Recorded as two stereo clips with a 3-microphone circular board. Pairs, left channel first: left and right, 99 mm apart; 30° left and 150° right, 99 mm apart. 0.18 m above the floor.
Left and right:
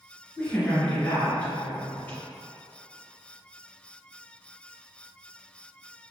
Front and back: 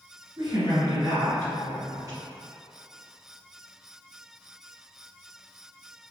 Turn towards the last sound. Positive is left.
turn(degrees=160)